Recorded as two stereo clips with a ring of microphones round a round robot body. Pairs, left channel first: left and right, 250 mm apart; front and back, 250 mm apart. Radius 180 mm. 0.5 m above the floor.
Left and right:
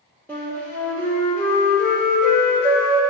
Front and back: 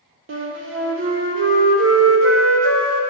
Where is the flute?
175° left, 1.3 m.